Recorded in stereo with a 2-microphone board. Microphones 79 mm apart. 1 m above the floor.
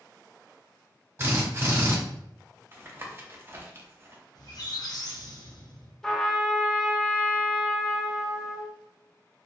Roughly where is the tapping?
Right.